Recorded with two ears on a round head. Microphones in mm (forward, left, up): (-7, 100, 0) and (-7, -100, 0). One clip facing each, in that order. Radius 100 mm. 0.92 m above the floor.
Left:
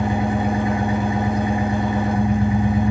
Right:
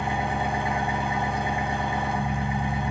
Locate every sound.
0.0 s an engine running: 45° left (ahead or behind), 4.5 m